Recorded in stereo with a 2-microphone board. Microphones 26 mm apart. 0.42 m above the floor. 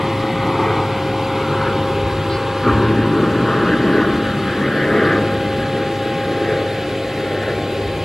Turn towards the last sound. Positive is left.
turn(degrees=30)  # may be behind; listen again after turning